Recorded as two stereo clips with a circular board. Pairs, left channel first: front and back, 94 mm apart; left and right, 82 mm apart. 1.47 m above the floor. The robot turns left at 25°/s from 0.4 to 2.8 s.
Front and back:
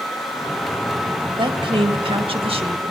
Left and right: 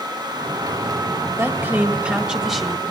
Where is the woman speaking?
150° right, 1.8 m; by 2.9 s 175° left, 1.8 m.